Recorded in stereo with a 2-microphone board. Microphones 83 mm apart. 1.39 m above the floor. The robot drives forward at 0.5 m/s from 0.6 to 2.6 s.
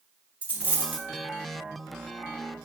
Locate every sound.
0.4 s a dropped coin: 20° right (ahead or behind), 1.2 m; by 1.1 s 25° right (ahead or behind), 1.1 m